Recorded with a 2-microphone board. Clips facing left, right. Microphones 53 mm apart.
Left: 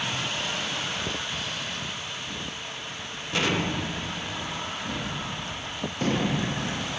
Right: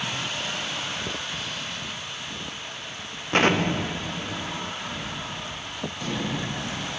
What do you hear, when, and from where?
3.3 s an explosion: 50° right (ahead or behind), 0.8 m
4.8 s a gunshot: 55° left (ahead or behind), 1.4 m